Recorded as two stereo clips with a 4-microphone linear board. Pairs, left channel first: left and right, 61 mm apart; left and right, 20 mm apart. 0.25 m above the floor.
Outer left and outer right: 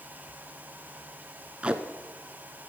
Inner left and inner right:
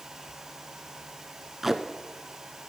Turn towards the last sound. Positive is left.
turn(degrees=-20)  # may be behind; listen again after turning